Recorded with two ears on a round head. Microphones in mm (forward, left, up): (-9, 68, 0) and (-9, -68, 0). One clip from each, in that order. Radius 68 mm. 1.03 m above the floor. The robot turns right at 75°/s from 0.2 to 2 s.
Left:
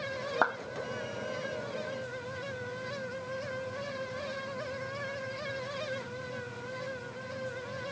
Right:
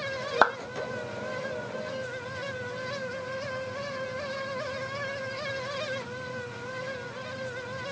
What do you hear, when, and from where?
0.4 s a clap: 55° right (ahead or behind), 1.1 m; by 0.6 s 45° right (ahead or behind), 1.1 m